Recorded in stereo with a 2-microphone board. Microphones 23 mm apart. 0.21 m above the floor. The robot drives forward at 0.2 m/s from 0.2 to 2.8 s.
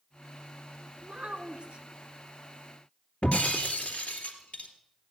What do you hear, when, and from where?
1.0 s a child speaking: 50° right (ahead or behind), 1.5 m
3.2 s breaking glass: 70° left (ahead or behind), 2.5 m